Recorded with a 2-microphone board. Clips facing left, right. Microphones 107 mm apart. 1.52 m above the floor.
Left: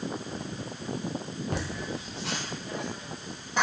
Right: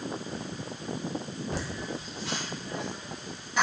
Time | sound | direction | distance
1.5 | laughter | 60° left (ahead or behind) | 0.5 m